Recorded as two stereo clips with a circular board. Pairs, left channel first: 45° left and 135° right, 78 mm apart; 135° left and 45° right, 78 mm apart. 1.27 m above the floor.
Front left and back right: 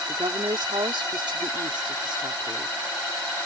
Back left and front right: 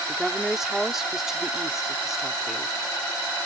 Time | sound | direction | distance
0.1 | a woman speaking | 130° right | ?